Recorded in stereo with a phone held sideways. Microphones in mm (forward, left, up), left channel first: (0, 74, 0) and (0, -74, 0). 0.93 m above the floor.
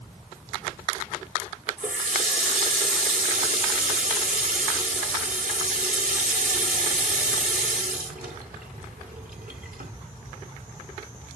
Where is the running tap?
80° right, 2 m.